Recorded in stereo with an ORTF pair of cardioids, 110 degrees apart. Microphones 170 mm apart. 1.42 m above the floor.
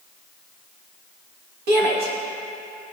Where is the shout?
70° right, 2.5 m; by 2.9 s 65° right, 3 m.